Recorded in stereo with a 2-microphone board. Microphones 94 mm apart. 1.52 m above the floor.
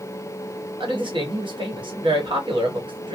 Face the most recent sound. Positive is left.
turn(degrees=-55)  # may be behind; listen again after turning